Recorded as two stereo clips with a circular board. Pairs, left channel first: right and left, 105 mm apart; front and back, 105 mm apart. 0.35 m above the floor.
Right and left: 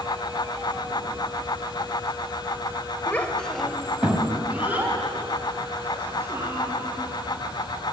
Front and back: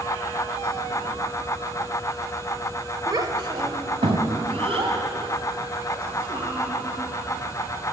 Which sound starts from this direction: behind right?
A child speaking, at 3.1 s.